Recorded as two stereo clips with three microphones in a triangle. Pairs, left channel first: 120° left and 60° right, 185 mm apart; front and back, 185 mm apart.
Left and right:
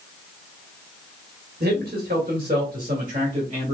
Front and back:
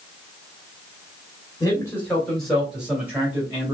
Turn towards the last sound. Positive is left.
turn(degrees=-110)